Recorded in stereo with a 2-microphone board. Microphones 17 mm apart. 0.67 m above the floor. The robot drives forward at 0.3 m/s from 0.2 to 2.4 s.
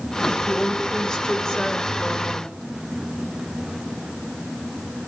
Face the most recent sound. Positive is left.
turn(degrees=45)  # may be behind; listen again after turning